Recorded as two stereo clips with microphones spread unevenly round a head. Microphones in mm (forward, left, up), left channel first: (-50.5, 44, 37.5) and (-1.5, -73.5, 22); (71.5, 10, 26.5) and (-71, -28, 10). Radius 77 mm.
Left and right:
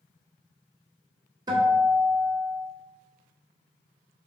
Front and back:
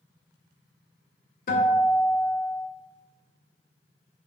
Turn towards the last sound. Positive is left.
turn(degrees=-10)